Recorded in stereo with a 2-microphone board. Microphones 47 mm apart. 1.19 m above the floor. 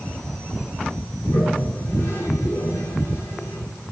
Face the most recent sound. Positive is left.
turn(degrees=55)  # may be behind; listen again after turning